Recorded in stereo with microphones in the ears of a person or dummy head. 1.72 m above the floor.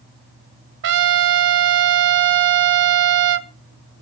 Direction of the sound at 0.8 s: 60° right (ahead or behind).